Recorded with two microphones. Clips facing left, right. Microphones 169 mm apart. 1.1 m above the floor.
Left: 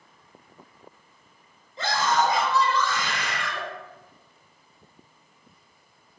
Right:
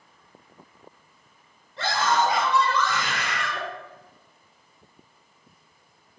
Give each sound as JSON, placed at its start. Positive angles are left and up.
{"t": 1.8, "sound": "a scream", "side_deg": -85, "distance_m": 4.5}